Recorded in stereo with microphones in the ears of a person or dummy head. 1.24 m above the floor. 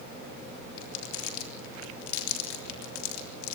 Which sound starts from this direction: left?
Crumpling, at 0.8 s.